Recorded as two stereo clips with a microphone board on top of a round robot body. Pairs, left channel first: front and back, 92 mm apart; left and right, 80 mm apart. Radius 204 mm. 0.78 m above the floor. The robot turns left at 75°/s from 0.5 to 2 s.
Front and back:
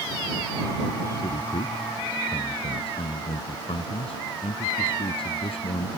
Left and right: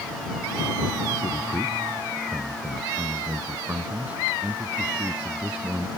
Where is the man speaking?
45° left; by 5.9 s 20° right.